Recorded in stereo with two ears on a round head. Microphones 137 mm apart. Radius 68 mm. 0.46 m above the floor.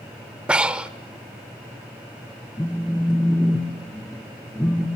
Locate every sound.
0.5 s breathing: 10° right (ahead or behind), 0.6 m
2.6 s a phone buzzing: 15° left (ahead or behind), 1.9 m